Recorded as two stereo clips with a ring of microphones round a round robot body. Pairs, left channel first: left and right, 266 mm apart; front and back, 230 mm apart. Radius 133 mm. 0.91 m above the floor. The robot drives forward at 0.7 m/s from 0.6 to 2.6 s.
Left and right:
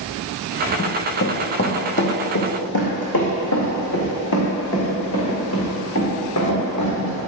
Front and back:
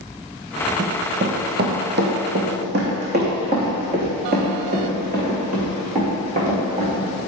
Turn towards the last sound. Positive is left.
turn(degrees=120)